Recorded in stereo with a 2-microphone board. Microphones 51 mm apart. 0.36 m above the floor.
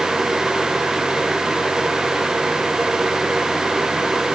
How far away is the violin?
No violin in this recording.